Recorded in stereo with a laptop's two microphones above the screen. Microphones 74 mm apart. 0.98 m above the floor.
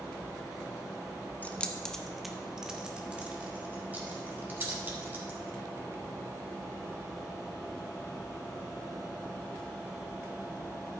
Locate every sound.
1.4 s keys jangling: 25° left (ahead or behind), 1.0 m; by 5.6 s 30° right (ahead or behind), 3.5 m